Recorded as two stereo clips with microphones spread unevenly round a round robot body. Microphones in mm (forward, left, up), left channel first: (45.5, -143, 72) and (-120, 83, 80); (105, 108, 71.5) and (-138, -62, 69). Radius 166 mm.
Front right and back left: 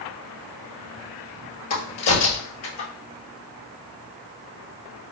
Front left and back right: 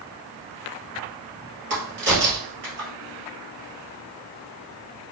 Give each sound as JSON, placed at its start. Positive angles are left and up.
{"t": 1.7, "sound": "a crack", "azimuth_deg": -90, "distance_m": 2.5}